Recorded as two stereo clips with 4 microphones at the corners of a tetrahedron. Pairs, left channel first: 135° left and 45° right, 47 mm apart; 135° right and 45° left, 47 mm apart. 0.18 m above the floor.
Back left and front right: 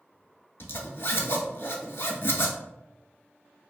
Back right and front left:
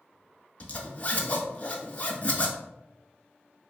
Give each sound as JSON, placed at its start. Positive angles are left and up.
{"t": 0.6, "sound": "a zipper", "azimuth_deg": 170, "distance_m": 0.5}